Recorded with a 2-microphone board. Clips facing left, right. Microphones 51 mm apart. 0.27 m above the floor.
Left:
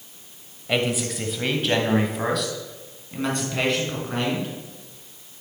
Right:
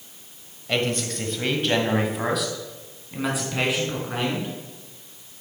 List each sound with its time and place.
0.7 s a man speaking: 10° left (ahead or behind), 1.2 m; by 4.5 s 5° right (ahead or behind), 3.5 m